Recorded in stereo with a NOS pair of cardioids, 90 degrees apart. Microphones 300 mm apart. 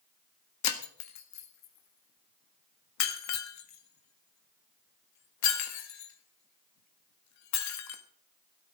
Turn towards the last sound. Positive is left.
turn(degrees=70)